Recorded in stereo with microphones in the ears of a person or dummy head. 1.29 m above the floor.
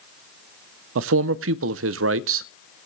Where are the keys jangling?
No keys jangling in this recording.